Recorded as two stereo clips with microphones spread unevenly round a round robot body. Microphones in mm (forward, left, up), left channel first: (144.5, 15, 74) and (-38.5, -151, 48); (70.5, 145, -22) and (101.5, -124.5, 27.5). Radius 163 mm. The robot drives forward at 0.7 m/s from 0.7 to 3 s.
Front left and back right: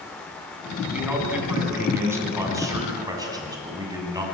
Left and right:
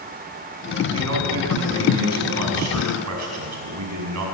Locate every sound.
0.9 s a man speaking: 50° right, 7.5 m; by 4.2 s 60° right, 6.5 m